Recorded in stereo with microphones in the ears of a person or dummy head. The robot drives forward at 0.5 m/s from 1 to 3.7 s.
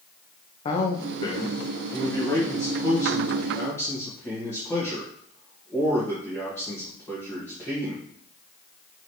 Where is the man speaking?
25° left (ahead or behind), 0.7 m; by 8.1 s 10° left (ahead or behind), 2.0 m.